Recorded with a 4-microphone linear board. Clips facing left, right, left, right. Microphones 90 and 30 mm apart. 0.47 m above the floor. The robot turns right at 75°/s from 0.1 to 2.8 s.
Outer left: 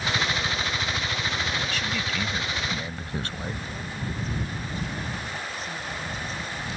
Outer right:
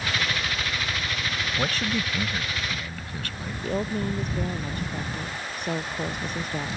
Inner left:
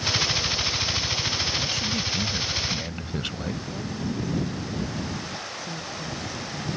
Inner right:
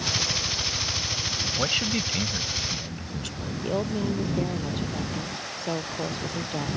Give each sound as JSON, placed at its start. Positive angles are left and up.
{"t": 1.6, "sound": "a man speaking", "azimuth_deg": -60}
{"t": 3.6, "sound": "a woman speaking", "side_deg": -60}